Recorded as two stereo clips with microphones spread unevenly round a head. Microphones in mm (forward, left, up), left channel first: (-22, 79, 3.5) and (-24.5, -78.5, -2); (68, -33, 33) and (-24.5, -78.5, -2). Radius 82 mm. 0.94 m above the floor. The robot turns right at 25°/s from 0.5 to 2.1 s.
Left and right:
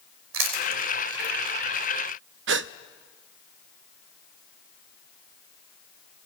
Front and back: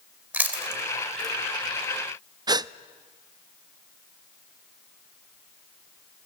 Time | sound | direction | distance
0.3 | chewing | 80° right | 3 m
2.5 | a gasp | 95° right | 0.6 m